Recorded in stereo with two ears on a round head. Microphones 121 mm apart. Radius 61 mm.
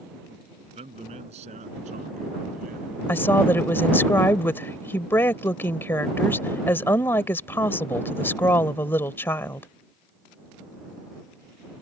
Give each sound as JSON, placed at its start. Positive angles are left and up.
{"t": 0.8, "sound": "a man speaking", "side_deg": -50}
{"t": 3.1, "sound": "a woman speaking", "side_deg": 20}